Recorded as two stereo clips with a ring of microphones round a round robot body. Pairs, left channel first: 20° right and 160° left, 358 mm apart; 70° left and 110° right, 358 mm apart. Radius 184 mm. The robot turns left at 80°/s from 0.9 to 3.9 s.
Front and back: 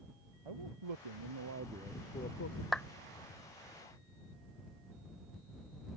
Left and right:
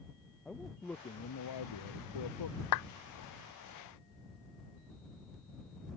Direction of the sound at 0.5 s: 155° left.